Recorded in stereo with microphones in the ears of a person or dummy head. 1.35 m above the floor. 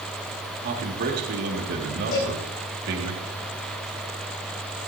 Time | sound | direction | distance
0.6 | a man speaking | 55° right (ahead or behind) | 2.5 m
2.1 | a cowbell | 50° left (ahead or behind) | 9 m